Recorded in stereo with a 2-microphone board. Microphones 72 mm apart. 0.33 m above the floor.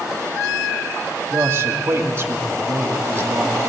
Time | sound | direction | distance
1.3 | a man speaking | 35° right (ahead or behind) | 2 m